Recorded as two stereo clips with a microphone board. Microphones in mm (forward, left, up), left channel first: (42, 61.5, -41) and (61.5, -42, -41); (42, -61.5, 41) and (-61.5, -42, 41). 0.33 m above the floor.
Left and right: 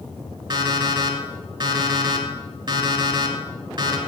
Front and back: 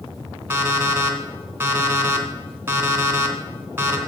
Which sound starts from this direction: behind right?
An alarm clock, at 0.5 s.